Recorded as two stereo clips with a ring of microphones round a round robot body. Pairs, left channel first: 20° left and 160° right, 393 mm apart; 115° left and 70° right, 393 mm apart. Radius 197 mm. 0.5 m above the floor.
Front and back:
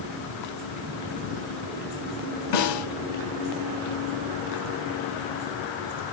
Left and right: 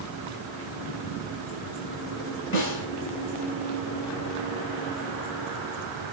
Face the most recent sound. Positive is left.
turn(degrees=50)